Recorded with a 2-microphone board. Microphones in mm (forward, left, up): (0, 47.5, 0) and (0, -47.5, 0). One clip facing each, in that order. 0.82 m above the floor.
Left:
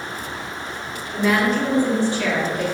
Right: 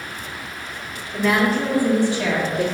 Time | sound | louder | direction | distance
1.1 | a woman speaking | even | 5° left (ahead or behind) | 2.5 m